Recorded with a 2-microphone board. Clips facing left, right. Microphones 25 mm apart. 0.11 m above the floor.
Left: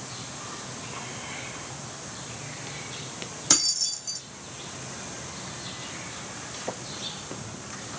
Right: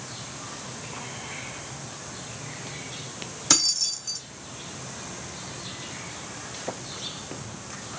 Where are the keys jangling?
10° right (ahead or behind), 3.5 m.